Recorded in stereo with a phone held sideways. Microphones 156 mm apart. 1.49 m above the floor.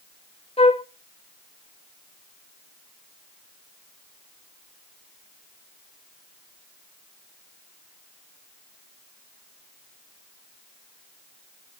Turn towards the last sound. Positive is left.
turn(degrees=40)  # may be behind; listen again after turning